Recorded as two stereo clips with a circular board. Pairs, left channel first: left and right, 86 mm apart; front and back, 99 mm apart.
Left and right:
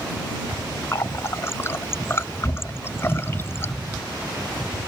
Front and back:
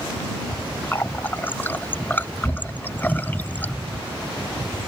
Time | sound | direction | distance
0.9 | a running tap | 55° left | ?